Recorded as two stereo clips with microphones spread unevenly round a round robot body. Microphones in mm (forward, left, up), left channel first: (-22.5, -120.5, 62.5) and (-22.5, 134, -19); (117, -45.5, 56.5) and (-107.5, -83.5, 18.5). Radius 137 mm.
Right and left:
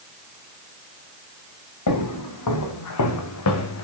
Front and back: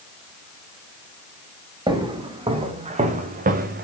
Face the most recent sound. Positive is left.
turn(degrees=-120)